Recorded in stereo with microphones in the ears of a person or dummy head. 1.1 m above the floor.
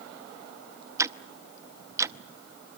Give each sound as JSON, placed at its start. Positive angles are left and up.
{"t": 1.0, "sound": "ticking", "side_deg": -20, "distance_m": 0.7}